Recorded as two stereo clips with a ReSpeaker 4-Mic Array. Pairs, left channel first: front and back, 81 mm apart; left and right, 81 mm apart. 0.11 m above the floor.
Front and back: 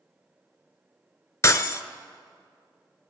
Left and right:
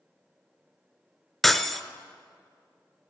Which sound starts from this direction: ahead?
Breaking glass, at 1.4 s.